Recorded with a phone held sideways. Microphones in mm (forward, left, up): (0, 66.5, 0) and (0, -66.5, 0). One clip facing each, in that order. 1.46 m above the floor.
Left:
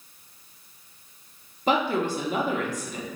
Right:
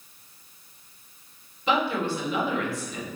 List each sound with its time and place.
1.7 s a woman speaking: 40° left (ahead or behind), 0.6 m